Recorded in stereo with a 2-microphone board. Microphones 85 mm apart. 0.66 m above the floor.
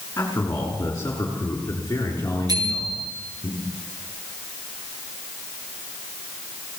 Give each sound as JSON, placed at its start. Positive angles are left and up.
{"t": 0.2, "sound": "a man speaking", "side_deg": 30, "distance_m": 6.5}
{"t": 2.5, "sound": "a bicycle bell", "side_deg": -50, "distance_m": 7.0}